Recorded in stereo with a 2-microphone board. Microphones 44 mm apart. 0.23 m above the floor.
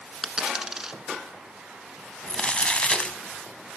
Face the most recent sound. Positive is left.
turn(degrees=30)  # may be behind; listen again after turning